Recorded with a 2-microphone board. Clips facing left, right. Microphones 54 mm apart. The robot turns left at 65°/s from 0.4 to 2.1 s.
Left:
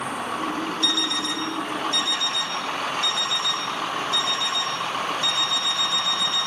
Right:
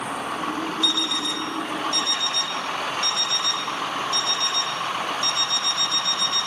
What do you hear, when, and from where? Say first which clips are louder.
0.8 s an alarm clock: even; 105° left, 4 m; by 6.5 s 20° left, 4 m